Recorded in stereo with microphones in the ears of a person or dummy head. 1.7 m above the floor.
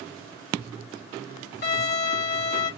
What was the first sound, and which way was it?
A violin, 45° left (ahead or behind).